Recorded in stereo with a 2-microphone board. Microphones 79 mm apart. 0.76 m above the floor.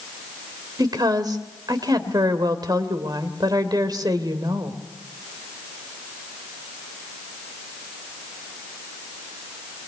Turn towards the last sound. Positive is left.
turn(degrees=-60)  # may be behind; listen again after turning